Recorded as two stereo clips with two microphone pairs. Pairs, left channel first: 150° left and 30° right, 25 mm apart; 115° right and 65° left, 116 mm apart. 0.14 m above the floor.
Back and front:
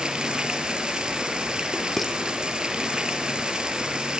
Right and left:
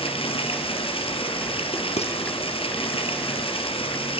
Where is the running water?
85° right, 3 m.